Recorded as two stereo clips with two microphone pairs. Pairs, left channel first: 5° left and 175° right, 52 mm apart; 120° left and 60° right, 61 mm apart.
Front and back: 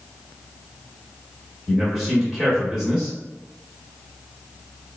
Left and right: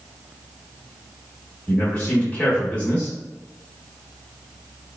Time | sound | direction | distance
1.7 | a man speaking | 110° left | 0.8 m